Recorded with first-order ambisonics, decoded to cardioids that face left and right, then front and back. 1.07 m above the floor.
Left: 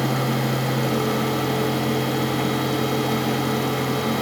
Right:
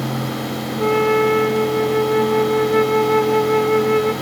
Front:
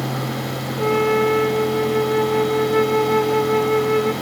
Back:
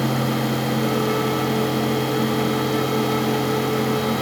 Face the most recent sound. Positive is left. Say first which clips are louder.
# right 11 dB, front 7 dB
turn(degrees=-60)